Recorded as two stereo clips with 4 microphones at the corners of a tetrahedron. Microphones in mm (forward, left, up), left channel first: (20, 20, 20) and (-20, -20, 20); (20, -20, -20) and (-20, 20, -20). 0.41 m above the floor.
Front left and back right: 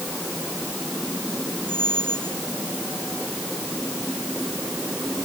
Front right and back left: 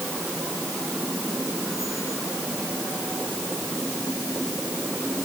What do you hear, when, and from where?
1.7 s a squeak: 85° right